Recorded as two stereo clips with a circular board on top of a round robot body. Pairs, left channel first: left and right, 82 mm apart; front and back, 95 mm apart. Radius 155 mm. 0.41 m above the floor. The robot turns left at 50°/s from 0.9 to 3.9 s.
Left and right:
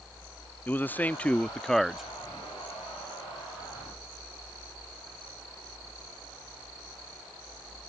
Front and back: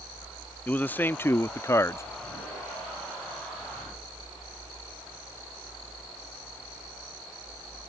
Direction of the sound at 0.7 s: 50° left.